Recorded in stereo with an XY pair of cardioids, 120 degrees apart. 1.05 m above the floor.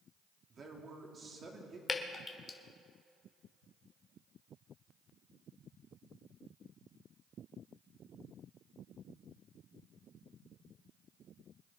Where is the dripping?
30° left, 1.4 m.